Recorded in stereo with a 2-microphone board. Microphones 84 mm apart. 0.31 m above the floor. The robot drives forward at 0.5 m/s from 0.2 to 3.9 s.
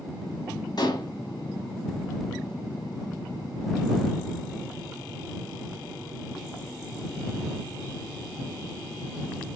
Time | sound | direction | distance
0.8 | dishes clattering | 55° left (ahead or behind) | 1.2 m